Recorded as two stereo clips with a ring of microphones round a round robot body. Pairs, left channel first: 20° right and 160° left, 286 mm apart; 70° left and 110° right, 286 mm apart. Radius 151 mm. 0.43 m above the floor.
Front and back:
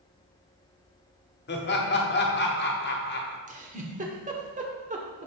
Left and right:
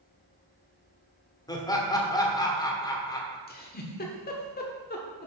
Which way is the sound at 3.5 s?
105° left.